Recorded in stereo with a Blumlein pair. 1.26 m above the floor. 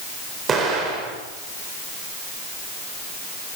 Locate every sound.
0.5 s an explosion: 20° right, 4 m